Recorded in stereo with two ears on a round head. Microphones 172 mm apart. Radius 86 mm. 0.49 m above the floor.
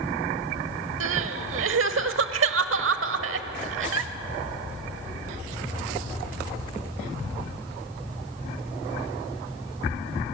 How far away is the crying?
About 1.1 m.